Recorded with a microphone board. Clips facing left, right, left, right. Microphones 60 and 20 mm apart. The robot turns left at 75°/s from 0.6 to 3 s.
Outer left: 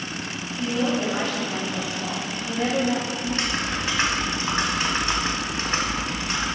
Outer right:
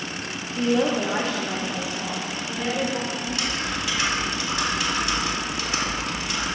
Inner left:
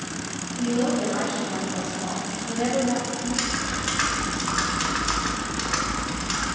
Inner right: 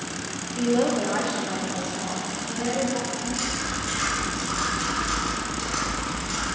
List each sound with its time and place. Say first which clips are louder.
0.6 s a woman speaking: outer right 3 dB, inner right 2 dB; 80° right, 1.4 m; by 3.1 s 100° left, 1.4 m
3.2 s typing on a keyboard: outer left 2 dB, inner left 2 dB; 35° left (ahead or behind), 1.9 m